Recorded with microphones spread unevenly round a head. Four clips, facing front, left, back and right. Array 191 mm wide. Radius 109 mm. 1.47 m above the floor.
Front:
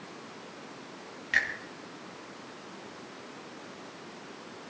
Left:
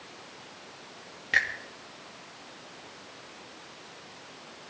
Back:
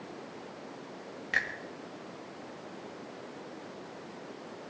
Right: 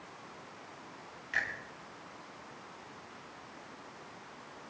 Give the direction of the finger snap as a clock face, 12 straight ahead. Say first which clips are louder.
Left 7 dB, front 3 dB; 8 o'clock.